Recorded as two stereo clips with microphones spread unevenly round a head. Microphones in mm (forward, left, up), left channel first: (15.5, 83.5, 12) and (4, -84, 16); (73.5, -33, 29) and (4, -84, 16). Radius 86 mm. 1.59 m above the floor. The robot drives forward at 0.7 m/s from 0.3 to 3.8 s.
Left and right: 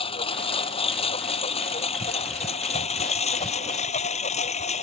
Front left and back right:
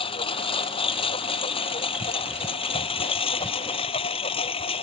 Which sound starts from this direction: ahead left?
A lawn mower, at 0.0 s.